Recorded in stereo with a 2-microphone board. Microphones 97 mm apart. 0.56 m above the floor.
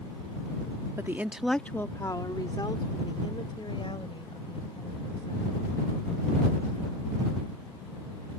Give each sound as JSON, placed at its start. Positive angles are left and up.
{"t": 1.0, "sound": "a woman speaking", "side_deg": -30}